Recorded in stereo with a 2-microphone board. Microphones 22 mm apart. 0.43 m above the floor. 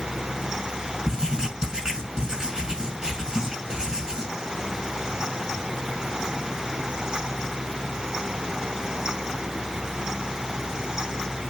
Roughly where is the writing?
Right.